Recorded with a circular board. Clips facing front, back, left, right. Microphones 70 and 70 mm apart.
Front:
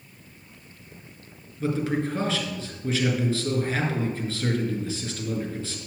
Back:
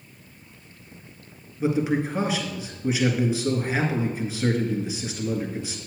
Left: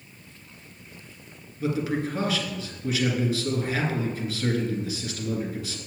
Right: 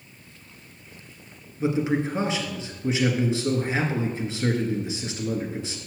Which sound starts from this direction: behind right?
A man speaking, at 1.6 s.